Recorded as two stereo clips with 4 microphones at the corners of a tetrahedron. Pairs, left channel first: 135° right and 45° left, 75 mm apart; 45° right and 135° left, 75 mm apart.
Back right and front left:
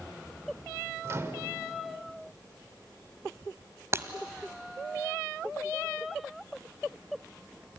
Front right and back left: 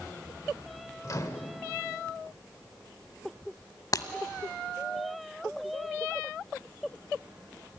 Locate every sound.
1.0 s a microwave: 5° right, 1.5 m
3.9 s breaking glass: 5° right, 1.3 m